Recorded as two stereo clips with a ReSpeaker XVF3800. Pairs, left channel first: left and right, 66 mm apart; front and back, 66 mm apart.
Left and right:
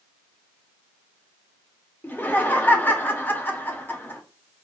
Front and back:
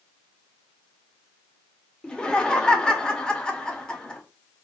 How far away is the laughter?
About 1.1 m.